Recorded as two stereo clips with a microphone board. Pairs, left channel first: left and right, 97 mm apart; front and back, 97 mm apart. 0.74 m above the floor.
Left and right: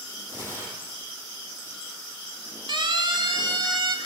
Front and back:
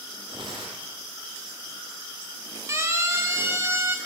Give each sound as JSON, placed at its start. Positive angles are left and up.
{"t": 0.3, "sound": "tearing paper", "azimuth_deg": -150, "distance_m": 8.0}
{"t": 2.7, "sound": "a siren", "azimuth_deg": -120, "distance_m": 4.0}